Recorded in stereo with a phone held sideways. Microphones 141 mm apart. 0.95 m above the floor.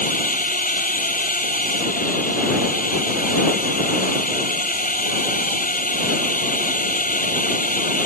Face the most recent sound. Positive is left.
turn(degrees=80)